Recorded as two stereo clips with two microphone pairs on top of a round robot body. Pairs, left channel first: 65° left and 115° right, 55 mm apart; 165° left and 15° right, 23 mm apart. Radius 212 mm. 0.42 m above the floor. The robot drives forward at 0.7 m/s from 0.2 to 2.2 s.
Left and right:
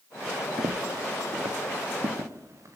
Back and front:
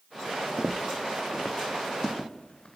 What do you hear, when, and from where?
0.6 s footsteps: 95° right, 0.9 m; by 2.8 s 145° right, 3.5 m